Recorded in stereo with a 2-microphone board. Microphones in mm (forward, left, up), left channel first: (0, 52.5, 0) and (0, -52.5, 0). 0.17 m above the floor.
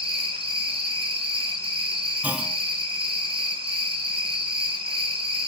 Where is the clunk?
15° right (ahead or behind), 0.5 m.